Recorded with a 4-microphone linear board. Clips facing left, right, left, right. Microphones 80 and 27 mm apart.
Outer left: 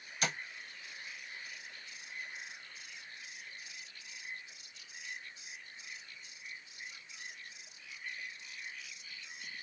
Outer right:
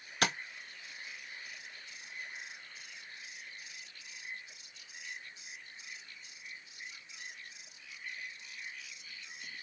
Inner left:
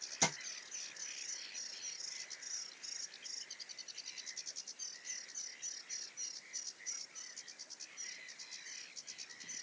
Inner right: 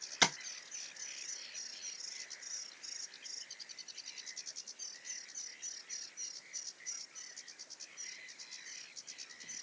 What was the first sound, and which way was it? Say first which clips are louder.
Tapping: outer right 4 dB, inner right 6 dB; 75° right (ahead or behind).